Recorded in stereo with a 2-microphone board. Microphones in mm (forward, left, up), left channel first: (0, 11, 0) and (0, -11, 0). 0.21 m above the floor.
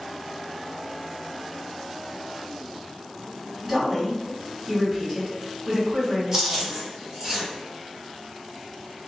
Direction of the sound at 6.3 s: 20° right (ahead or behind).